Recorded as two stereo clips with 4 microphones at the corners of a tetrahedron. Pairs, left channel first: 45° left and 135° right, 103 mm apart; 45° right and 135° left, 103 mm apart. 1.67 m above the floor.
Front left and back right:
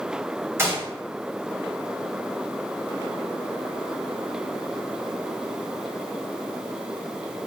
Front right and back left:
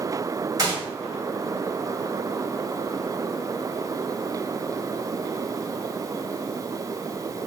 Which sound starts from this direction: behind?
A gunshot, at 0.6 s.